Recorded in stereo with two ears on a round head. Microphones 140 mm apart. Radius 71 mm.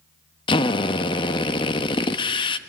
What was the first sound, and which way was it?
A drill, 35° left (ahead or behind).